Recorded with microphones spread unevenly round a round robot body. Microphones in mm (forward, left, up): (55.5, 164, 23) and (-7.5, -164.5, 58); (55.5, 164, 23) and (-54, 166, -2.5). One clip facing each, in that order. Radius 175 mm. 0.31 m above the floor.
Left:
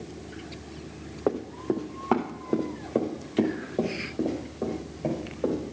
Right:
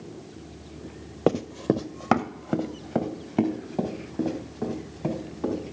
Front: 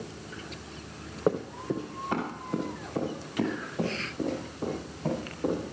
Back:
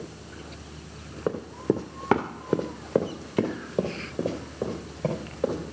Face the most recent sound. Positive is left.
turn(degrees=-170)